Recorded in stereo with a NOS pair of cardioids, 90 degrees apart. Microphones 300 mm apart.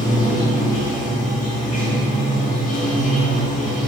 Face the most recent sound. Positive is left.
turn(degrees=25)